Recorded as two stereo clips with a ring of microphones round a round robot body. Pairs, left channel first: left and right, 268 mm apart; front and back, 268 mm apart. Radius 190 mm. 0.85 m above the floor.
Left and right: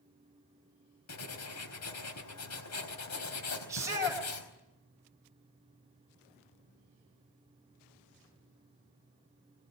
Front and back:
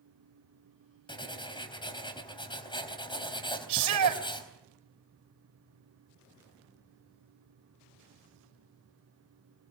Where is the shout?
170° right, 4 m.